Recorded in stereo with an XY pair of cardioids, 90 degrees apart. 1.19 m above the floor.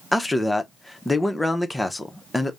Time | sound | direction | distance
0.1 | a man speaking | 10° left | 0.7 m